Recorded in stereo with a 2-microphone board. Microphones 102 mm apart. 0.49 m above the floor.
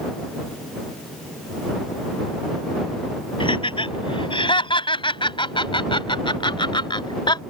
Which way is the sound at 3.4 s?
60° left (ahead or behind).